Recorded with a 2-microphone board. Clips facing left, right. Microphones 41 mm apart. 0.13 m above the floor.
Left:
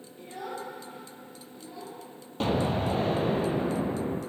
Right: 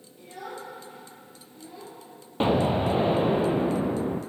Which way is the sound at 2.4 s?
25° right (ahead or behind).